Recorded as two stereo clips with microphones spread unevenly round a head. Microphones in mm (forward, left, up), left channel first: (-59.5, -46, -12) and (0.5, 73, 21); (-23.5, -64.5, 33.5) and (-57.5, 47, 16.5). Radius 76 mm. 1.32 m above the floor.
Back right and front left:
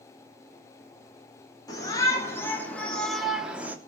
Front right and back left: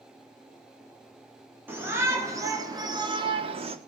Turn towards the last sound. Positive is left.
turn(degrees=140)